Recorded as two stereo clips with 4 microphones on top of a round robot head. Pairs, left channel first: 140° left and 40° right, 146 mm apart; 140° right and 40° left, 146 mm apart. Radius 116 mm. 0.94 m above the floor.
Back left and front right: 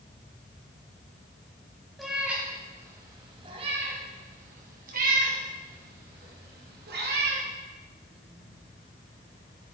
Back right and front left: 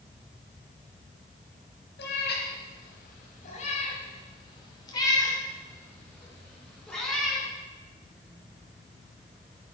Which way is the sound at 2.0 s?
130° right.